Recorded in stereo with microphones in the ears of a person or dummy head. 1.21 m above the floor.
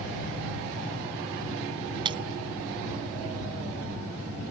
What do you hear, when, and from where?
2.0 s breaking glass: 25° right (ahead or behind)